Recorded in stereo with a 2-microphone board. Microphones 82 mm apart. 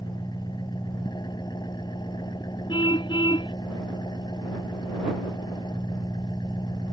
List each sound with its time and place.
0.0 s an engine running: 60° left (ahead or behind)
2.7 s a car horn: 75° left (ahead or behind)